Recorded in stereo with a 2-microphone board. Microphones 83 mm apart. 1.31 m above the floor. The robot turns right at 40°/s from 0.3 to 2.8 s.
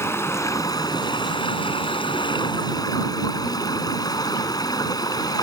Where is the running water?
30° left; by 5.5 s 130° left.